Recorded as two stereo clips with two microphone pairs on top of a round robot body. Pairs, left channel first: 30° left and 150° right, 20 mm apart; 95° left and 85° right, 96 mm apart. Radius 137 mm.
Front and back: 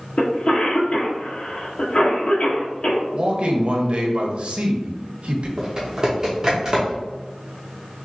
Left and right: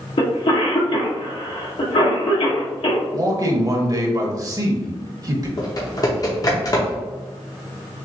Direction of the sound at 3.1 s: 130° right.